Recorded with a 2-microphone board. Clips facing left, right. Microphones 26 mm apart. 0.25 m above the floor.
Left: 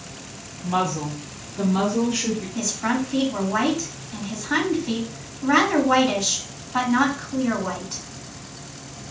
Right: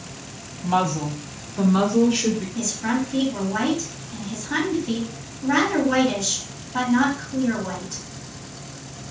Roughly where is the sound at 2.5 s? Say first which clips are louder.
Even; left.